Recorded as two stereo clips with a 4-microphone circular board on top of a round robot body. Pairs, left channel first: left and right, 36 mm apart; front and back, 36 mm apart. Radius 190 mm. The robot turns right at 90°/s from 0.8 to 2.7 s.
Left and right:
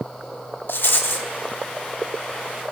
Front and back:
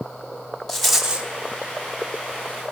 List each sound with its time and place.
0.7 s a rattle: 80° left, 1.0 m; by 1.3 s 125° left, 1.0 m